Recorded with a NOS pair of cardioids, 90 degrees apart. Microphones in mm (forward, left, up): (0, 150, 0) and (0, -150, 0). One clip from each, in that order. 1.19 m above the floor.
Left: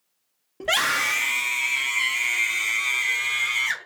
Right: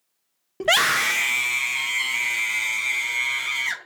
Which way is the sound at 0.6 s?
35° right.